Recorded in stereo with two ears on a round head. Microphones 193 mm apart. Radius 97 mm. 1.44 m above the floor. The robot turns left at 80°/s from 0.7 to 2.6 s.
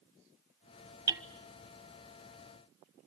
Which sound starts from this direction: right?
Hammering, at 1.1 s.